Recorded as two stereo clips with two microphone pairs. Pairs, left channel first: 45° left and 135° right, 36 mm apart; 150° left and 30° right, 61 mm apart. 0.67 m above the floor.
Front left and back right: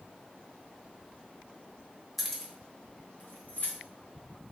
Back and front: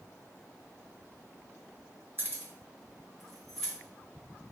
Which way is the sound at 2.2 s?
45° right.